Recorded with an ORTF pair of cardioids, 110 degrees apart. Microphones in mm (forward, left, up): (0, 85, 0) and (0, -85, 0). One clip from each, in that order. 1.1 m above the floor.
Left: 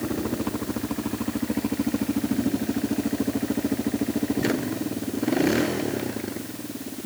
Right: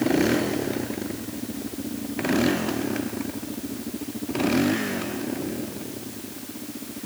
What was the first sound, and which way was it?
Only background noise.